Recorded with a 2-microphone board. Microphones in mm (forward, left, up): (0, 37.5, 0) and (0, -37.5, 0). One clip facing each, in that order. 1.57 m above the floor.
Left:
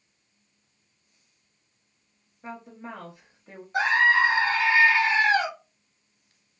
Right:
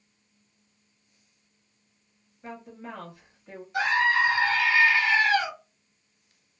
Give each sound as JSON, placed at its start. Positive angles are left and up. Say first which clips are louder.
{"t": 2.4, "sound": "a woman speaking", "louder": "left 1 dB", "side_deg": 15, "distance_m": 0.8}
{"t": 3.7, "sound": "a scream", "louder": "left 2 dB", "side_deg": 35, "distance_m": 1.4}